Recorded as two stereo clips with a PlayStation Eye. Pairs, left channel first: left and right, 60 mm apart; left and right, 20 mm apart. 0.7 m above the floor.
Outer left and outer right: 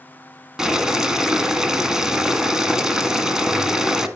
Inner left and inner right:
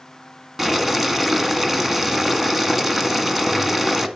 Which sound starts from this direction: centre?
Boiling, at 0.6 s.